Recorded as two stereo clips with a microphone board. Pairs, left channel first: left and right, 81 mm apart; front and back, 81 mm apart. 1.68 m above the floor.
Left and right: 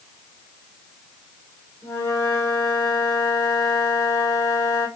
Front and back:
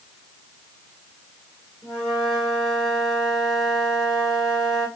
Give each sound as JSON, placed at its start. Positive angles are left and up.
{"t": 1.8, "sound": "a flute", "azimuth_deg": 95, "distance_m": 1.8}